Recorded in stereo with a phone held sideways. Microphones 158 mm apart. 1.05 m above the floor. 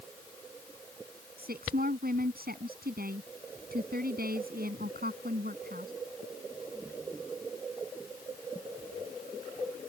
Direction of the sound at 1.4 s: 90° right.